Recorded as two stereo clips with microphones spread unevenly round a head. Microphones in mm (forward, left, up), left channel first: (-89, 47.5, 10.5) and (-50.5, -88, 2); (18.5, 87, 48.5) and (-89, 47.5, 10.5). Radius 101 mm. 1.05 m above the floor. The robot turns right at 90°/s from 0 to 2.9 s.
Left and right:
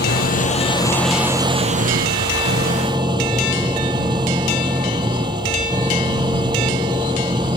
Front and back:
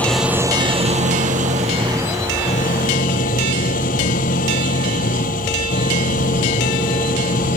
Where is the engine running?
95° left; by 7.6 s 5° right.